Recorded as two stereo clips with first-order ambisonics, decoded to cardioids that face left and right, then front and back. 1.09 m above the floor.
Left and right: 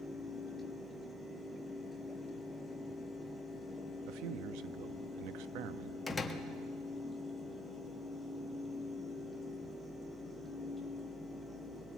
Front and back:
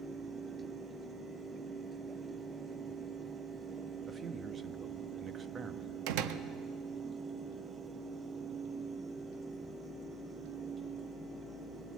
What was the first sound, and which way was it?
A man speaking, 110° right.